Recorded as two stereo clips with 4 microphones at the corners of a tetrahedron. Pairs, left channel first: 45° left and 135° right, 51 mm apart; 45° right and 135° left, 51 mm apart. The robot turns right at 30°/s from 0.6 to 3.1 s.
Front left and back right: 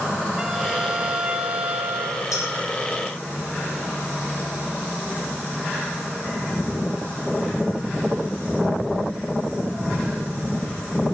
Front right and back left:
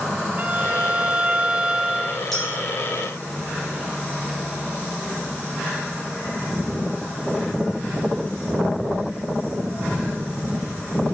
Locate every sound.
0.4 s a violin: 155° left, 0.6 m; by 2.2 s 155° right, 0.6 m
2.3 s a clink: 40° left, 5.5 m; by 2.6 s 50° left, 5.5 m